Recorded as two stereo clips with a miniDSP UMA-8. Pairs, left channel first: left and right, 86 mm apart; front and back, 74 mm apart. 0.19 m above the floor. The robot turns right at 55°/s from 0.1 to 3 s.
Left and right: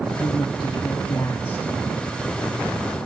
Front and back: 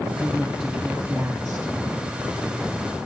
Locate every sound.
0.2 s a woman speaking: 70° left, 2.5 m; by 1.7 s 155° left, 2.5 m